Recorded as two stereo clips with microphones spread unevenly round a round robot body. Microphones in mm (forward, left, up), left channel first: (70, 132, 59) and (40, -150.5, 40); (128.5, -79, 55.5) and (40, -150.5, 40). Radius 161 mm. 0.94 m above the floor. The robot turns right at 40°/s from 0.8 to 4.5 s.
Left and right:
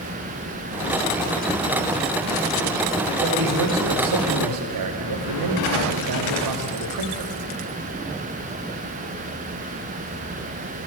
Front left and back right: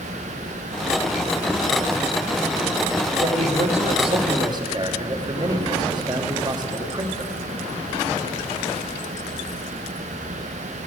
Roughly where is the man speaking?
Behind right.